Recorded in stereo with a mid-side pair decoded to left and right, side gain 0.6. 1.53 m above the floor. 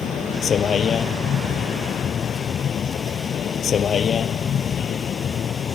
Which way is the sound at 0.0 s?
40° left.